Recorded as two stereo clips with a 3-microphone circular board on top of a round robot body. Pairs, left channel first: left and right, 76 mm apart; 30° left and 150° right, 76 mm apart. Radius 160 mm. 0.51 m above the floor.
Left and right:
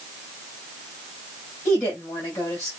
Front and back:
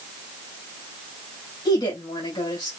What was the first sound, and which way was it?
A woman speaking, 30° left.